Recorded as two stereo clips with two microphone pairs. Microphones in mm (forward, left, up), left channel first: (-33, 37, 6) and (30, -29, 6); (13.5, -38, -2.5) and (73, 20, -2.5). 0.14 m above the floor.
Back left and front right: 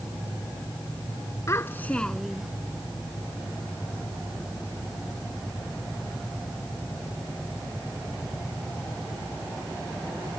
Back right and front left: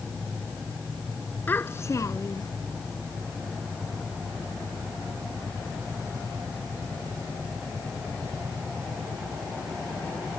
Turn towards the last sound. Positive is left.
turn(degrees=-125)